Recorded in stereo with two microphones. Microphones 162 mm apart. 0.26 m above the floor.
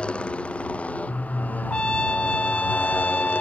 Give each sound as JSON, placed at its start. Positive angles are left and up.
{"t": 0.0, "sound": "a motorcycle", "side_deg": 5}
{"t": 1.7, "sound": "a trumpet", "side_deg": 5}